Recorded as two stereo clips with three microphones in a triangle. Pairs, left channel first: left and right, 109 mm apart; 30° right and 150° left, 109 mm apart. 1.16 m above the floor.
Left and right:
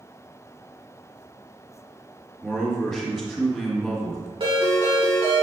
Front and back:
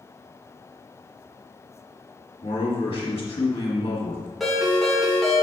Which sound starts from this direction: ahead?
A man speaking, at 2.4 s.